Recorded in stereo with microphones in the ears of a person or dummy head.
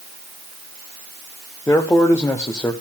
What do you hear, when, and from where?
1.7 s a man speaking: 15° left (ahead or behind), 0.8 m